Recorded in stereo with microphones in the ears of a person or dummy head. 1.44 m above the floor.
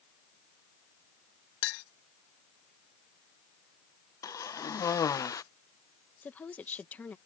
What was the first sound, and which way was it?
A clink, 65° left (ahead or behind).